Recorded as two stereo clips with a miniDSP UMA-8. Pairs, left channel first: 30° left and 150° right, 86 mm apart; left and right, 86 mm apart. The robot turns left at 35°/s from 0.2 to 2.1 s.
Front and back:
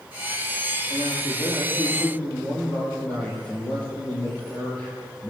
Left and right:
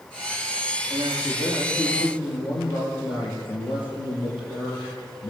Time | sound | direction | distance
0.9 | a man speaking | 150° left | 9.5 m